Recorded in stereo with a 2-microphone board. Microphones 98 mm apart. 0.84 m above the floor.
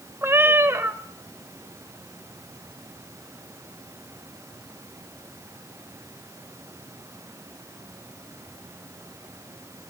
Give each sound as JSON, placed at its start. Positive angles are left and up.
{"t": 0.2, "sound": "a cat meowing", "side_deg": -25, "distance_m": 1.2}